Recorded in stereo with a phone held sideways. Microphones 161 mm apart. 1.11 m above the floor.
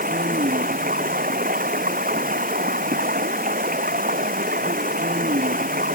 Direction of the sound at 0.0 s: 70° right (ahead or behind).